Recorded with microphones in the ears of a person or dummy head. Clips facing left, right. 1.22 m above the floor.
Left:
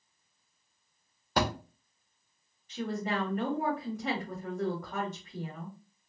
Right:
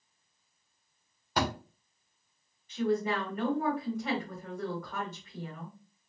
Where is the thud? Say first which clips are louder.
Left 1 dB; 70° left (ahead or behind), 1.7 m.